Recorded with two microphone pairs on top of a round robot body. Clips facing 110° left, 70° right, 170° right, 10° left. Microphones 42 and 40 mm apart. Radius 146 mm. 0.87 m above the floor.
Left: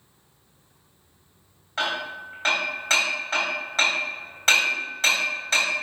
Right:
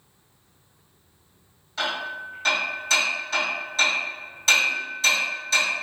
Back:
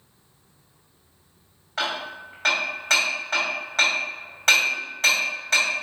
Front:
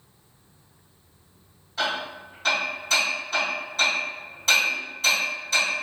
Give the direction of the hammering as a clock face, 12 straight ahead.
7 o'clock.